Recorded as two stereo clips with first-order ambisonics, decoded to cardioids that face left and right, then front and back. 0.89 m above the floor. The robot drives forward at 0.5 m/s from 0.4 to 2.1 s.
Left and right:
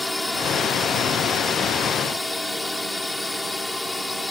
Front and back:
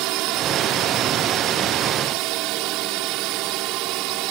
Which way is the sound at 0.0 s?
170° left.